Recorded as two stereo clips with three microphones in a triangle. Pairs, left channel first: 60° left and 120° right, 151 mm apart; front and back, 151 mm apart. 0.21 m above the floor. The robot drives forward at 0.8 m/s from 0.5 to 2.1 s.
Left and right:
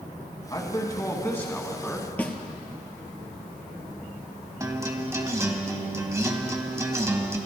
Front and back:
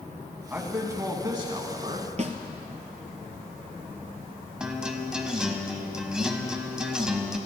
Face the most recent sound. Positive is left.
turn(degrees=-105)